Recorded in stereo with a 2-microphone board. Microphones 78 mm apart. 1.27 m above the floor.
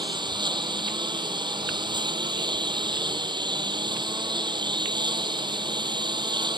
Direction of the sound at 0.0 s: 85° right.